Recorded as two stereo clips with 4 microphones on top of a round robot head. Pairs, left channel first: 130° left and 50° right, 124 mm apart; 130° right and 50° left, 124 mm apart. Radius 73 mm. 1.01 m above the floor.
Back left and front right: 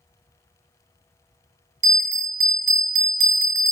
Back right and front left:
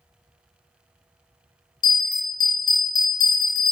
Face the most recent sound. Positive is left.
turn(degrees=-75)